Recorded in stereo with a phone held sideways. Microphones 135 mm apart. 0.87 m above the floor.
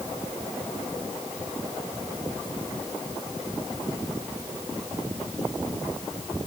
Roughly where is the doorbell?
I don't hear a doorbell.